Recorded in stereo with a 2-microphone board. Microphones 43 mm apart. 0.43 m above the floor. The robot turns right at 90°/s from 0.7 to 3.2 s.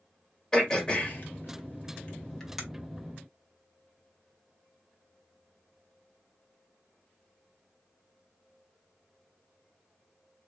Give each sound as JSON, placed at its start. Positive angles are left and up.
{"t": 0.5, "sound": "throat clearing", "side_deg": 15, "distance_m": 1.9}